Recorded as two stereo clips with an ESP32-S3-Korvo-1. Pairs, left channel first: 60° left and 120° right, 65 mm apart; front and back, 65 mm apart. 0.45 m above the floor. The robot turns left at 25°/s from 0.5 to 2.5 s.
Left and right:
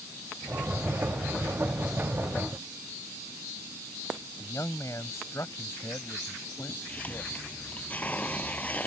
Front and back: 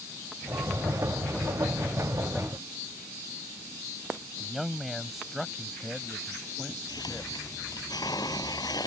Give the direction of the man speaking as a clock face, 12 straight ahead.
9 o'clock.